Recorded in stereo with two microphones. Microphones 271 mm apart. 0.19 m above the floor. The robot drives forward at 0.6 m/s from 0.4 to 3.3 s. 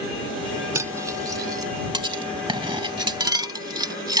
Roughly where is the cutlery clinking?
Centre.